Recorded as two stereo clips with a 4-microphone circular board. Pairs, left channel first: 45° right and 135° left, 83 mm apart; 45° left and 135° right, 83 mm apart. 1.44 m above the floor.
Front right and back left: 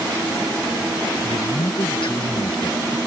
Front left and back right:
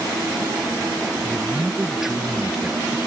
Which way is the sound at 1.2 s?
50° right.